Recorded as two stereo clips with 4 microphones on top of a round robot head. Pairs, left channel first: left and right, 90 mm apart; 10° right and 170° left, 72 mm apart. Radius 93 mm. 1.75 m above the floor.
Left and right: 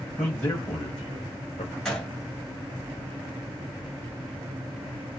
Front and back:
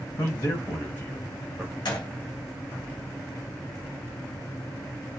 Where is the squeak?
I don't hear a squeak.